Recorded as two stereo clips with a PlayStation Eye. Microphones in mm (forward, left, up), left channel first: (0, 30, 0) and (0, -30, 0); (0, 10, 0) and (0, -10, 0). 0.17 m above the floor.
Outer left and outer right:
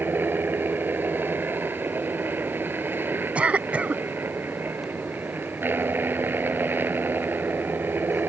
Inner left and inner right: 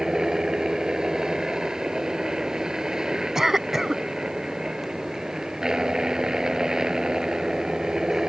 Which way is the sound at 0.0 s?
35° right (ahead or behind).